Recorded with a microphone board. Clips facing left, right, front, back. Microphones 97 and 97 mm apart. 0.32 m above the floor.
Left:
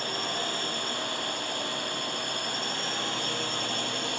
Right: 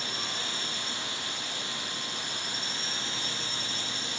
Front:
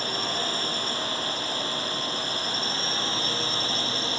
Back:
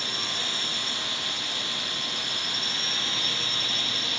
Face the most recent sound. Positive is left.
turn(degrees=55)